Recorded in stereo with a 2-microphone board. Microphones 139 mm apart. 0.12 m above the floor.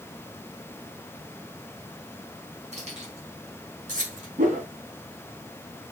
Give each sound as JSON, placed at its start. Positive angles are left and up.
{"t": 2.7, "sound": "keys jangling", "side_deg": -55, "distance_m": 4.5}
{"t": 4.4, "sound": "a whoosh", "side_deg": -70, "distance_m": 5.5}